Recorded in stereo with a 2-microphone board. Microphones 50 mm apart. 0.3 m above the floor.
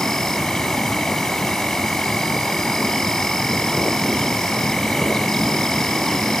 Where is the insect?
5° left (ahead or behind), 2 m.